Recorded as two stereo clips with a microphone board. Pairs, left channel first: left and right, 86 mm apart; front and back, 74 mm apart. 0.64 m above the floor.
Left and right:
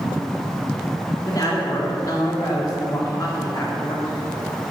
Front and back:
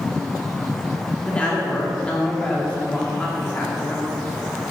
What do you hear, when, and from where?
1.3 s a woman speaking: 70° left, 1.7 m